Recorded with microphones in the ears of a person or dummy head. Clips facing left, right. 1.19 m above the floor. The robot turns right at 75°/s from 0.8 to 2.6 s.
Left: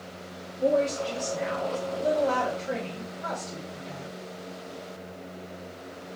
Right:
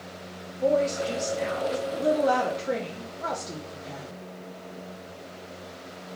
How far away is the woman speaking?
About 1.0 m.